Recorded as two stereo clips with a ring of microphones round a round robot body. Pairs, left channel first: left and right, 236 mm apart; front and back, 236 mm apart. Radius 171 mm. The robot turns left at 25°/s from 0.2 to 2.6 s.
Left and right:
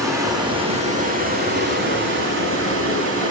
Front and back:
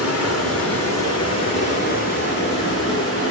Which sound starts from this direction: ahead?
Running water, at 0.0 s.